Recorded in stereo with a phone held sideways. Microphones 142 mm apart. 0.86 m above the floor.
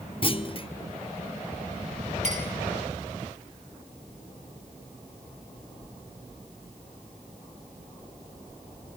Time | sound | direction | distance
0.2 | a clunk | 40° left (ahead or behind) | 0.6 m
2.2 | a clink | 60° right (ahead or behind) | 5 m